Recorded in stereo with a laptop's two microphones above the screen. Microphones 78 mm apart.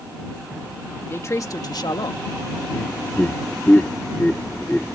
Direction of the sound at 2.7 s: 20° left (ahead or behind).